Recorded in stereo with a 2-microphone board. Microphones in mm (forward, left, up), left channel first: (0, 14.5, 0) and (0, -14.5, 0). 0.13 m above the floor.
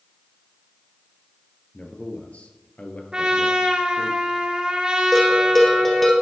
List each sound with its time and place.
1.7 s a man speaking: 45° left (ahead or behind), 2 m
3.1 s a trumpet: 35° right (ahead or behind), 1.9 m
5.1 s a bell: 10° left (ahead or behind), 2.5 m